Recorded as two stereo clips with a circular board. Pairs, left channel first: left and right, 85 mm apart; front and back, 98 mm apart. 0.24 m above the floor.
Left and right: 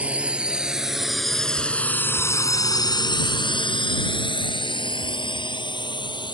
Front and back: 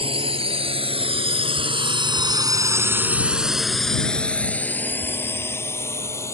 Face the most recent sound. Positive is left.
turn(degrees=60)